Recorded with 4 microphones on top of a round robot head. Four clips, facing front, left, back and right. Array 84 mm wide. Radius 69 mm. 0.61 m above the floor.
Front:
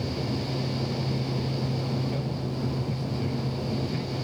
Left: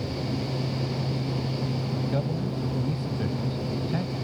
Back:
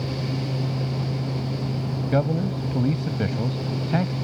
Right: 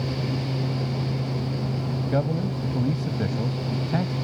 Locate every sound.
2.1 s a man speaking: 155° right